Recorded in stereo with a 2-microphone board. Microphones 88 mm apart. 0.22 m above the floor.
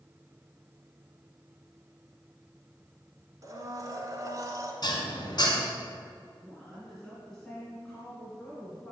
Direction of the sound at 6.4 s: Centre (ahead or behind).